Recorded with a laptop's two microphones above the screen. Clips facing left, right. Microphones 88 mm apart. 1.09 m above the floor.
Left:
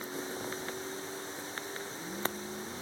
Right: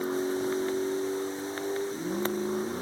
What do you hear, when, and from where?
0.0 s a vehicle: 65° right (ahead or behind)